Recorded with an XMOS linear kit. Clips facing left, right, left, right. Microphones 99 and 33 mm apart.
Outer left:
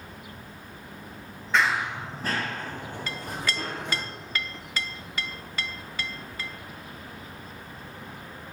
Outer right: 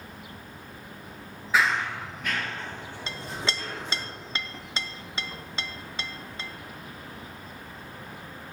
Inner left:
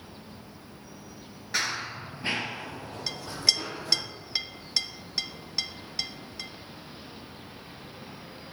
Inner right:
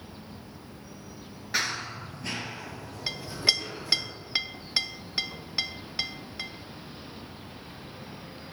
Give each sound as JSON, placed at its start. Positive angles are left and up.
{"t": 1.5, "sound": "running footsteps", "side_deg": -5, "distance_m": 0.7}
{"t": 3.1, "sound": "a clink", "side_deg": -25, "distance_m": 0.5}